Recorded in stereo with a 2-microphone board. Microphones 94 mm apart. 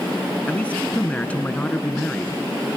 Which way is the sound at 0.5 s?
15° left (ahead or behind).